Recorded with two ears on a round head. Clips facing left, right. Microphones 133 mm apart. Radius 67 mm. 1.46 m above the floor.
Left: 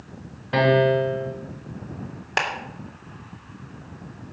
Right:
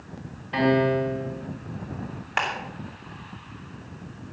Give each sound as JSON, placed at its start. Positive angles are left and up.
{"t": 0.5, "sound": "a piano", "side_deg": 65, "distance_m": 2.5}
{"t": 2.4, "sound": "a clap", "side_deg": 45, "distance_m": 3.5}